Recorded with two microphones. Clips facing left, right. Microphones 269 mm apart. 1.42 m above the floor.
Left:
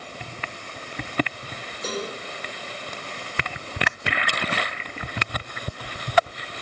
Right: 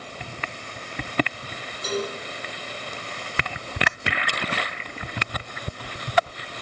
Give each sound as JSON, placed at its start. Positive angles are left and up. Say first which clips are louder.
{"t": 1.8, "sound": "a cowbell", "louder": "right 3 dB", "side_deg": 70, "distance_m": 2.5}